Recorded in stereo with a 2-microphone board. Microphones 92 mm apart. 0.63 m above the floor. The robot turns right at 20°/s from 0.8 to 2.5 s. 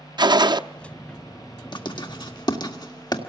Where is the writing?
55° left (ahead or behind), 1.8 m; by 3.2 s 50° left (ahead or behind), 1.8 m.